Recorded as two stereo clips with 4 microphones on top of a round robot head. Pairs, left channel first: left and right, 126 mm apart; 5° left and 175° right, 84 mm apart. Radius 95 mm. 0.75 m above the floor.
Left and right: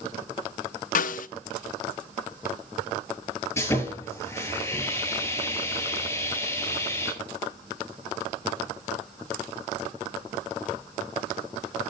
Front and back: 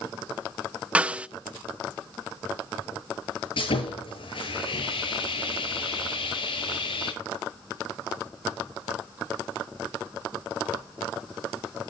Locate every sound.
0.9 s a snare drum: 110° left, 0.7 m
3.6 s sawing: 20° left, 8.5 m